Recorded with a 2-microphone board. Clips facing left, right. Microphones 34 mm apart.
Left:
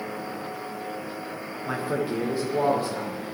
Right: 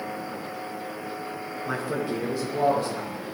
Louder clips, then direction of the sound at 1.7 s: Left 1 dB; 10° left (ahead or behind).